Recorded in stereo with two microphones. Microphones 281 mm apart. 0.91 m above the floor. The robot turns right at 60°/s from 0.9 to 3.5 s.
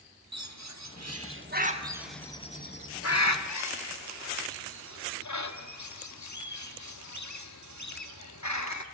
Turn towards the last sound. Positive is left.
turn(degrees=80)